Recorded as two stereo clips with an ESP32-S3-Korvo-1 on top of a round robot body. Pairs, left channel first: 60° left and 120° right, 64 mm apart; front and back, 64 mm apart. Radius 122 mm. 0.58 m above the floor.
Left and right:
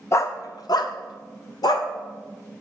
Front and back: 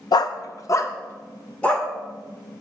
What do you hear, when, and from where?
0.1 s a dog barking: 10° left, 0.5 m; by 1.9 s 75° left, 1.0 m